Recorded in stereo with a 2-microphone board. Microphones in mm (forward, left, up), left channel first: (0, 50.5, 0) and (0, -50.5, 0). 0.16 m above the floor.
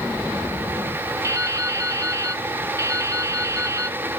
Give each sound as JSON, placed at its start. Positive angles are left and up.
{"t": 1.2, "sound": "dripping", "side_deg": -30, "distance_m": 0.5}